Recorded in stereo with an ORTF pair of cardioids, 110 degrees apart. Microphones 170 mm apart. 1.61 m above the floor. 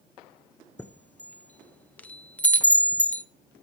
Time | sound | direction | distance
0.8 | a chime | 10° left | 0.7 m